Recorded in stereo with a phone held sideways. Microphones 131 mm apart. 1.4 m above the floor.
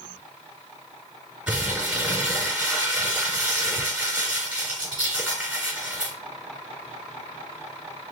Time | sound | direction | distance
1.5 | crumpling | 10° right (ahead or behind) | 3 m